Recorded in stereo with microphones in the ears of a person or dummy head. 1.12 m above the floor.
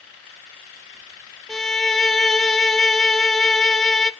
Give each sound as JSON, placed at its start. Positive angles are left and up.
{"t": 1.5, "sound": "a violin", "side_deg": 5, "distance_m": 0.6}